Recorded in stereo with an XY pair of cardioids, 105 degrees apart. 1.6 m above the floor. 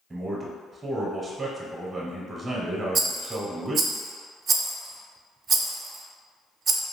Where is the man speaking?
30° right, 0.8 m.